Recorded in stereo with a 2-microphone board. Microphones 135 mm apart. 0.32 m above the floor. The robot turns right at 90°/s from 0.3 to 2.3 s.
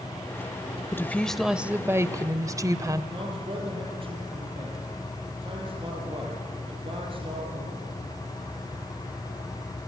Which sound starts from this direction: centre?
A woman speaking, at 0.9 s.